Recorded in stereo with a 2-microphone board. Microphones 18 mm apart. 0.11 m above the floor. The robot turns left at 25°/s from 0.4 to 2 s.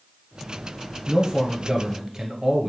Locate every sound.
1.1 s a man speaking: 40° right (ahead or behind), 1.4 m; by 2.7 s 35° right (ahead or behind), 1.4 m